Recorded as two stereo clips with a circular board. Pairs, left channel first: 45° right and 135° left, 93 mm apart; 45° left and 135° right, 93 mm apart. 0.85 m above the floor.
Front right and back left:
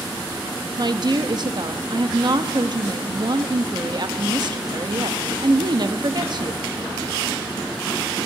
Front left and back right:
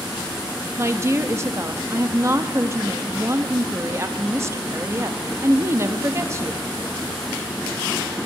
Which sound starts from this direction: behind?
A woman speaking, at 0.8 s.